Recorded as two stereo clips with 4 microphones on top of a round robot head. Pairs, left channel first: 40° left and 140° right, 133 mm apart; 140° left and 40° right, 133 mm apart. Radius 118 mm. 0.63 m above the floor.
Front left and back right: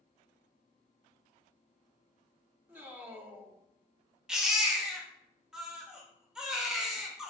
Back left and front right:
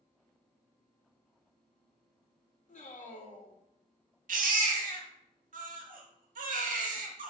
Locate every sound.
2.7 s a man speaking: 145° left, 1.4 m
4.3 s a baby crying: 50° right, 1.3 m